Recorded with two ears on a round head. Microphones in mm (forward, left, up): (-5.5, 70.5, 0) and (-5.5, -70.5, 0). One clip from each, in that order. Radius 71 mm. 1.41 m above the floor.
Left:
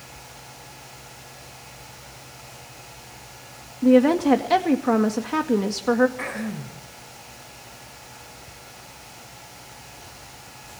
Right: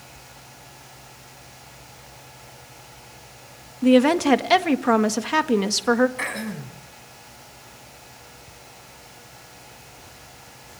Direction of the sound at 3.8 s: 50° right (ahead or behind).